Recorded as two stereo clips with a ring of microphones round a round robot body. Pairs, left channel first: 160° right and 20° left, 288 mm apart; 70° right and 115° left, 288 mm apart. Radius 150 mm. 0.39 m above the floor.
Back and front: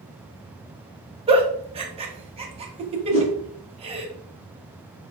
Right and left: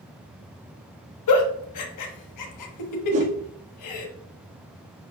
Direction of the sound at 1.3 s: 50° right.